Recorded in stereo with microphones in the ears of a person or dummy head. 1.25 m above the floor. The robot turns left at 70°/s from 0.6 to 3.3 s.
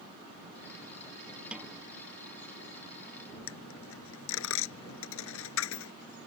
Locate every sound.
1.5 s a snare drum: centre (ahead or behind); by 1.8 s 20° right (ahead or behind)
3.5 s a dropped coin: 85° left